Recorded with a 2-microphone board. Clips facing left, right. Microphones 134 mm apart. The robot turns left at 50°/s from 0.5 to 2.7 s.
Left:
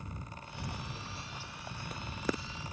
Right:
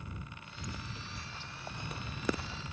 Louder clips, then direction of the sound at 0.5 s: Left 2 dB; 75° left (ahead or behind).